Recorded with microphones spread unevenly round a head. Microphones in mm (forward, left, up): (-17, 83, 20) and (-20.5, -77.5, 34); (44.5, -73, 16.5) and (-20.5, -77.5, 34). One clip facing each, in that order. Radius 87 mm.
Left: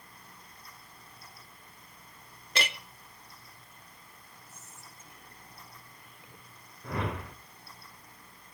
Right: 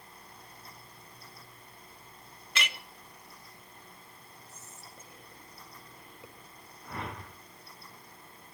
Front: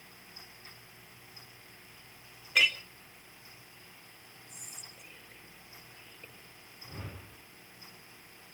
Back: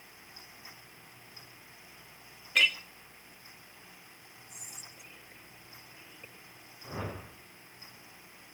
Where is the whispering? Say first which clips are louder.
Right 2 dB, back 1 dB; 95° right, 7.5 m.